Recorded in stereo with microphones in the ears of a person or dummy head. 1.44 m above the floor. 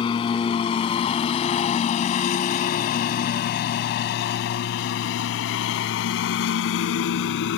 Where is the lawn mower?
30° left (ahead or behind); by 7.6 s 60° left (ahead or behind).